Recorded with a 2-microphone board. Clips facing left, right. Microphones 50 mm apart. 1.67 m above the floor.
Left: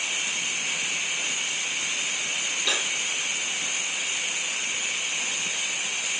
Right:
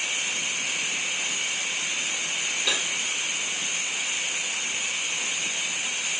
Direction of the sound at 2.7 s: 5° right (ahead or behind).